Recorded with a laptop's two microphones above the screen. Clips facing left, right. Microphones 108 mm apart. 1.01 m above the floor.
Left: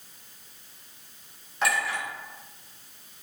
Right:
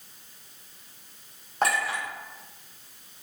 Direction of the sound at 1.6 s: 45° right (ahead or behind).